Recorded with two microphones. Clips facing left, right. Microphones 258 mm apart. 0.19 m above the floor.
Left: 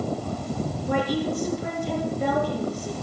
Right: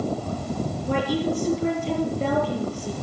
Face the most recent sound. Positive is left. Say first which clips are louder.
# right 1 dB
turn(degrees=-35)  # may be behind; listen again after turning